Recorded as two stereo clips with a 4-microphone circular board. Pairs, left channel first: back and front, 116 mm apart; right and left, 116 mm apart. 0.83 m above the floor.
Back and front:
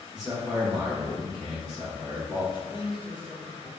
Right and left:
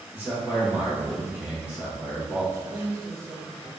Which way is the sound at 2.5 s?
150° left.